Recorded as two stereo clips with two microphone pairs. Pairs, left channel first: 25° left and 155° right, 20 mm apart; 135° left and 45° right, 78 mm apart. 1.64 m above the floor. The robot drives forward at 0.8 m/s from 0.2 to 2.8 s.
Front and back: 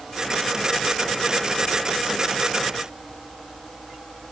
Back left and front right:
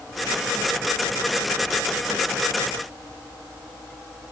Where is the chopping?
No chopping in this recording.